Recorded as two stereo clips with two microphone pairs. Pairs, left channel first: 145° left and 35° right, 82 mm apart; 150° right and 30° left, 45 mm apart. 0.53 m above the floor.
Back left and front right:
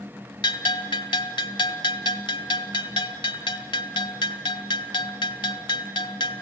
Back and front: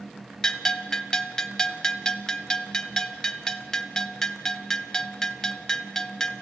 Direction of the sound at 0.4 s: 130° left.